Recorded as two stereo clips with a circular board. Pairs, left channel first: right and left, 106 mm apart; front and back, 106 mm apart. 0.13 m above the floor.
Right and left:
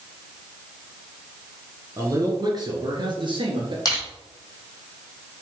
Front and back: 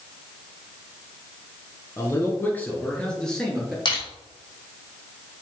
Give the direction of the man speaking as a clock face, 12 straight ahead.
10 o'clock.